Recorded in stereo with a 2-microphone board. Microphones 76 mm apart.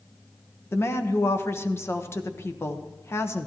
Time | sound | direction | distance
0.7 | a woman speaking | 35° left (ahead or behind) | 1.1 m